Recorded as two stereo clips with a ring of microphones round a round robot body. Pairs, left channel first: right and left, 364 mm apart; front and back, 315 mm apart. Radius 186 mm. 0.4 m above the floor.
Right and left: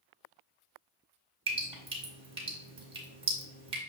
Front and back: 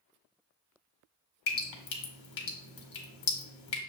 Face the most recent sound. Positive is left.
turn(degrees=15)